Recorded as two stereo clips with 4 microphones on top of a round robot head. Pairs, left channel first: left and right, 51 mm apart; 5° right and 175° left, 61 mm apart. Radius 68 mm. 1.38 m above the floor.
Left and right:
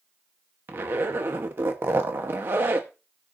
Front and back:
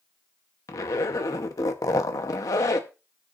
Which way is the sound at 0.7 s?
40° right.